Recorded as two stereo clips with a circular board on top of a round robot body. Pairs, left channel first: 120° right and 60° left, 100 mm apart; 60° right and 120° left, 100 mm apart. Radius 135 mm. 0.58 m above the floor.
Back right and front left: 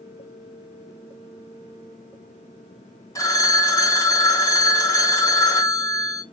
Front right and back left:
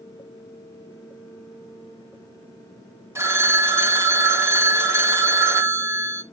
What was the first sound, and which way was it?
A phone ringing, 175° right.